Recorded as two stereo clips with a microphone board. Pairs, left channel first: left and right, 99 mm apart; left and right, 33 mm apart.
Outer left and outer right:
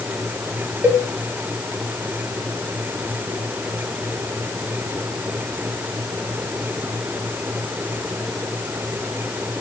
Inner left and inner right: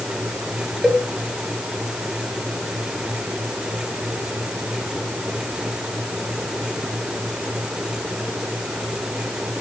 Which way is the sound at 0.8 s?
20° right (ahead or behind).